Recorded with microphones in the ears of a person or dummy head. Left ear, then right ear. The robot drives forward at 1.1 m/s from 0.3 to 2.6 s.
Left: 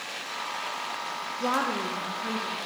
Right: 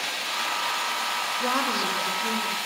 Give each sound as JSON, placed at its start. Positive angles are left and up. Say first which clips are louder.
{"t": 1.4, "sound": "a woman speaking", "louder": "even", "side_deg": 10, "distance_m": 0.6}